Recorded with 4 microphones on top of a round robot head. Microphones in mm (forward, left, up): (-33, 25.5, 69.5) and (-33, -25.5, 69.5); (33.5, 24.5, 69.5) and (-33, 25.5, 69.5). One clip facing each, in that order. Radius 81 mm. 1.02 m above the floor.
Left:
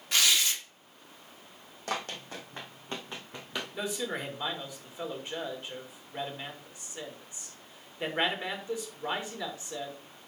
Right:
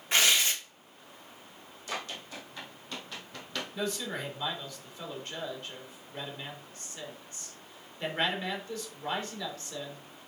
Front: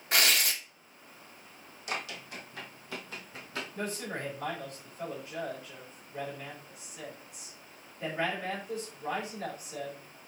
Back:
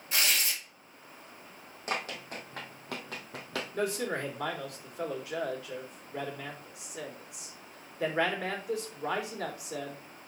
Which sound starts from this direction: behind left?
Running footsteps, at 1.9 s.